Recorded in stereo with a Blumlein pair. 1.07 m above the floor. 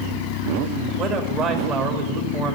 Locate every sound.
1.0 s a man speaking: 30° right, 2 m